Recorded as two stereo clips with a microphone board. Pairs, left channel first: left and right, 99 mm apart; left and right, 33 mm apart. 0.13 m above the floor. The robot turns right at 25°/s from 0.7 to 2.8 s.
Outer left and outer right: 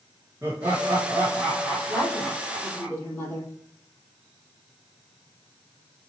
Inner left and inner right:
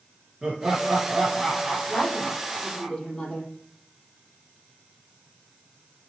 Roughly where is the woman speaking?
Centre.